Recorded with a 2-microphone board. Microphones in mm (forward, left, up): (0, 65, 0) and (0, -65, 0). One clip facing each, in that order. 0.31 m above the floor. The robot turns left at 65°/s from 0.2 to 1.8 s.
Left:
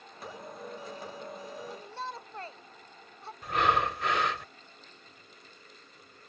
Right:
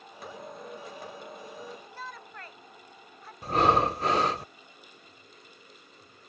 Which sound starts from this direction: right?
Breathing, at 3.4 s.